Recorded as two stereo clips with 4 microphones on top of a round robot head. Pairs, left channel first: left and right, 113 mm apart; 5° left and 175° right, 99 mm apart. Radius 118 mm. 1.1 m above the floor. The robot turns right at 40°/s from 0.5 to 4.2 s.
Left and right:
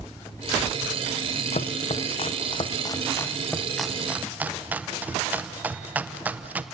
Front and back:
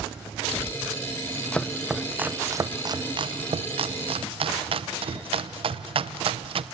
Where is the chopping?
85° left, 0.7 m; by 6.6 s 165° right, 0.7 m.